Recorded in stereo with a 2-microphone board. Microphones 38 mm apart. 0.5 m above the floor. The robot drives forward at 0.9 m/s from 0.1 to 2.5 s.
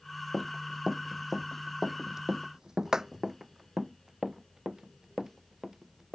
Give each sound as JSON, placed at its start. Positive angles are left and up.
{"t": 0.3, "sound": "running footsteps", "side_deg": 0}